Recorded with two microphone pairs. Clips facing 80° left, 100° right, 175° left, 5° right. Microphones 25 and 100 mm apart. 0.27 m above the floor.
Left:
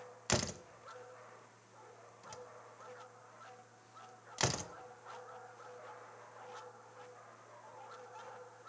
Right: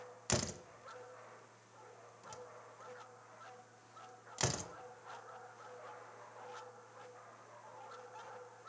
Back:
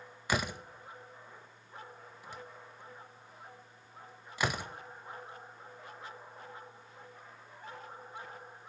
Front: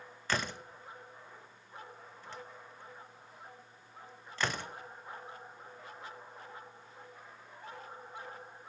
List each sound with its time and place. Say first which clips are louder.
0.3 s a door slam: left 2 dB, back 2 dB; 120° left, 0.6 m